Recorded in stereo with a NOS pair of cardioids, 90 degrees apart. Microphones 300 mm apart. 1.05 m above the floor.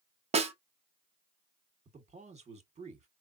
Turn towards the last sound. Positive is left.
turn(degrees=-20)